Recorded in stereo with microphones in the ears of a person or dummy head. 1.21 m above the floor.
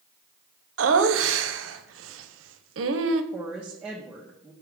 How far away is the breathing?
No breathing in this recording.